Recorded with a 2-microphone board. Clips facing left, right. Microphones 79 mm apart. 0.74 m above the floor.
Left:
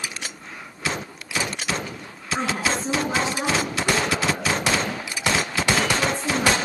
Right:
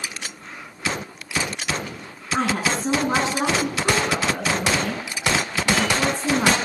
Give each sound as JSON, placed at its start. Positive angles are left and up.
{"t": 2.3, "sound": "a woman speaking", "side_deg": -65, "distance_m": 9.0}